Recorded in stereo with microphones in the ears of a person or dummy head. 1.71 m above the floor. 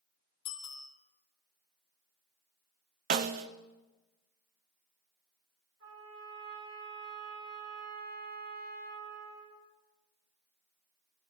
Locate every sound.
0.5 s a bicycle bell: 25° left (ahead or behind), 2 m
3.1 s a snare drum: 40° right (ahead or behind), 0.6 m
5.8 s a trumpet: 85° right, 10 m